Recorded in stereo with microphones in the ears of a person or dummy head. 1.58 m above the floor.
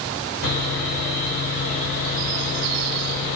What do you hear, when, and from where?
0.4 s sawing: 55° left (ahead or behind), 1.2 m